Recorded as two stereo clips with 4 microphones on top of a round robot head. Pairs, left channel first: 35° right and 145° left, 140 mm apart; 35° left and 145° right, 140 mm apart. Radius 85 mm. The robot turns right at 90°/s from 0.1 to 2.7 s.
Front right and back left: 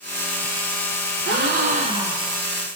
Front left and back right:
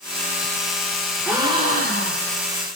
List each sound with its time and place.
1.2 s a gasp: 135° left, 1.0 m; by 2.4 s 115° right, 1.0 m